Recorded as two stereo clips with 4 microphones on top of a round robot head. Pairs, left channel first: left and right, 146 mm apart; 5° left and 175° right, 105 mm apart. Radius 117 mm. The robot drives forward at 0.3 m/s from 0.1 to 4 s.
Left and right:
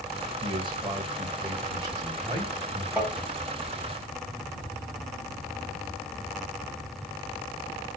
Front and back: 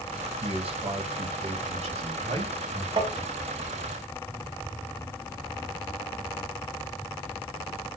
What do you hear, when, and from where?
0.4 s a man speaking: 145° right, 1.4 m; by 2.9 s 155° right, 2 m
3.0 s tapping: 170° right, 1.2 m